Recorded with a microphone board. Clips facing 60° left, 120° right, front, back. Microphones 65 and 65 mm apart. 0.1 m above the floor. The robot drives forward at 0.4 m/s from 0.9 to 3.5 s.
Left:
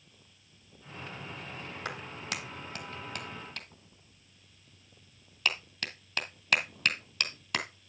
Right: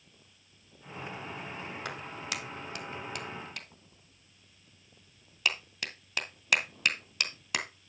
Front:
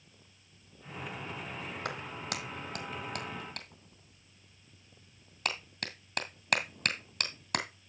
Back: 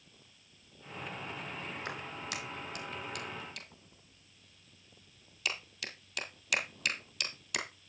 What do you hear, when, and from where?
1.9 s a clap: 30° right, 2.5 m; by 7.7 s 40° right, 2.0 m